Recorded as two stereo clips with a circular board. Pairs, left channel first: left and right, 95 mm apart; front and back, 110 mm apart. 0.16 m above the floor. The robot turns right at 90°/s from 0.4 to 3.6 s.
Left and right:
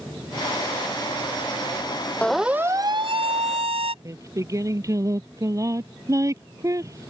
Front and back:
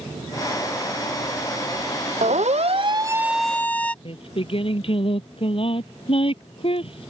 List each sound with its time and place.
2.2 s a siren: 170° left; by 4.0 s 80° right
4.0 s singing: 35° right